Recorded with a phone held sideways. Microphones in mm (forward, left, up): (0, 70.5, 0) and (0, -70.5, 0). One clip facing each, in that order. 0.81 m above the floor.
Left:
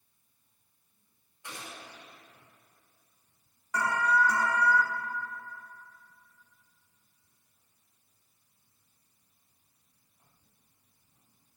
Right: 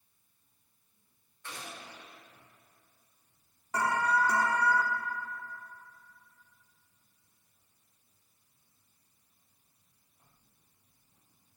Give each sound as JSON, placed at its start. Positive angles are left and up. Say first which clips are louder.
{"t": 1.4, "sound": "a gunshot", "louder": "even", "side_deg": 15, "distance_m": 3.0}
{"t": 3.7, "sound": "an alarm", "louder": "left 1 dB", "side_deg": -30, "distance_m": 1.0}